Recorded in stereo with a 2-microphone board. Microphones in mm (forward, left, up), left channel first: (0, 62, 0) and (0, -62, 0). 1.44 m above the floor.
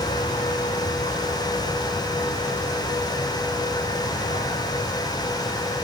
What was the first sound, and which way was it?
An aircraft, 80° left.